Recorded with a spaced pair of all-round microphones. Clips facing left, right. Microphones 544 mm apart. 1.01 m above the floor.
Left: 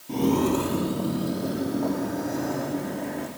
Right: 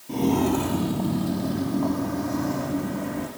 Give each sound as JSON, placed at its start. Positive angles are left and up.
{"t": 0.1, "sound": "footsteps", "side_deg": 0, "distance_m": 1.6}